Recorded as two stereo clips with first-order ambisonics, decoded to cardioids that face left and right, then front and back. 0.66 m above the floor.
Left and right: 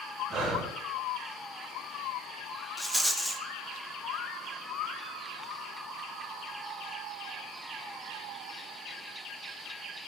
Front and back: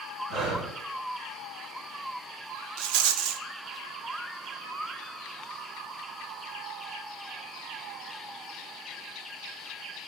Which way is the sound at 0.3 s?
145° right.